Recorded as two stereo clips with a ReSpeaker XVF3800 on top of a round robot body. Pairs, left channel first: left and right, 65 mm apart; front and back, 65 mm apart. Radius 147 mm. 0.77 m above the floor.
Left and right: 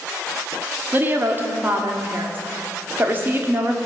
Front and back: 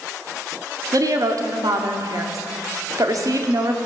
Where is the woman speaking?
150° right, 2.0 m.